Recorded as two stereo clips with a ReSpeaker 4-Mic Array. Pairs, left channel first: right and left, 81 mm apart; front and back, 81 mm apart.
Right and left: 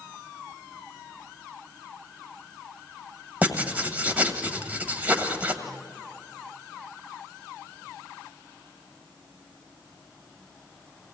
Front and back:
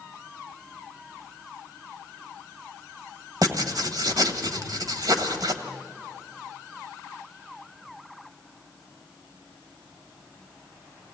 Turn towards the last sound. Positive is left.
turn(degrees=160)